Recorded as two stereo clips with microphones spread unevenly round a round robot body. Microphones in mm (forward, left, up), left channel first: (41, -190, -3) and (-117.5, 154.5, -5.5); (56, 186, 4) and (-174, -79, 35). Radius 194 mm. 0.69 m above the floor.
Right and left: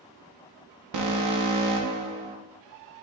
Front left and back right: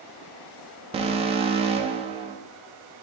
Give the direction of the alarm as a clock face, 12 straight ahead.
7 o'clock.